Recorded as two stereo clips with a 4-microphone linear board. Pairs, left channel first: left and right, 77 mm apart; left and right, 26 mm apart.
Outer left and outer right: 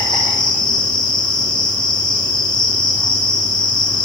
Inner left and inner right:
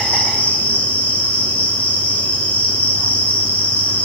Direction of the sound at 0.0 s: 80° left.